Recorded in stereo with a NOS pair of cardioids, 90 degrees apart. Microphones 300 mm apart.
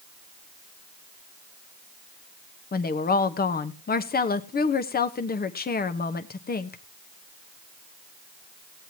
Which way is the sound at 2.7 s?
30° left.